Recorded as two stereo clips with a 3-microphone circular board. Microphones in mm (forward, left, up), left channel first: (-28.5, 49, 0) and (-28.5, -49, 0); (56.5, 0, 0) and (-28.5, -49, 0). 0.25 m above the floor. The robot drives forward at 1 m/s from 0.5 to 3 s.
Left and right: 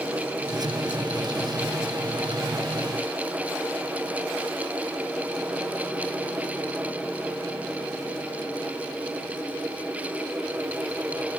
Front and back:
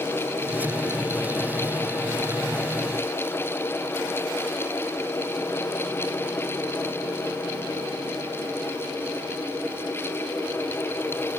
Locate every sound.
Only background noise.